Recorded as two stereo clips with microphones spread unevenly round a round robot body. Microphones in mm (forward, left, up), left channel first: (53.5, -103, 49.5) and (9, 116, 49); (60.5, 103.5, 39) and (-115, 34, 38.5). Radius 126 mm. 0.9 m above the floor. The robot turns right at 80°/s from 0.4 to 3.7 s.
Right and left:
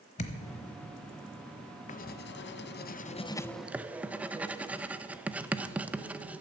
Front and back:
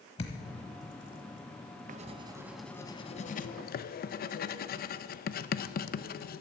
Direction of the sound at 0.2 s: 35° right.